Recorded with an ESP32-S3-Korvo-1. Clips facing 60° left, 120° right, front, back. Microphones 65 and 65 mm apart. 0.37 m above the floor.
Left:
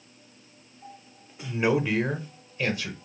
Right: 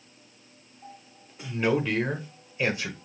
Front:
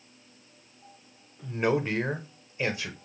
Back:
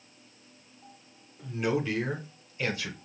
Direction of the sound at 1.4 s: 5° left.